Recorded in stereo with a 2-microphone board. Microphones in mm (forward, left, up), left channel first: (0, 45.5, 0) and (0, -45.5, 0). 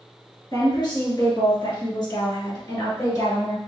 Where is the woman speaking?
50° left (ahead or behind), 2.5 m; by 3.6 s 40° left (ahead or behind), 2.5 m.